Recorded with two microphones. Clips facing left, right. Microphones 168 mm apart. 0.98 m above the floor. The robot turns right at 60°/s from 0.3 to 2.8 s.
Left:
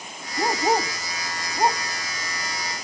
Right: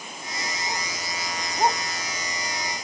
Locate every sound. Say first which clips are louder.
0.4 s a dog barking: left 12 dB; 80° left; by 1.8 s centre (ahead or behind)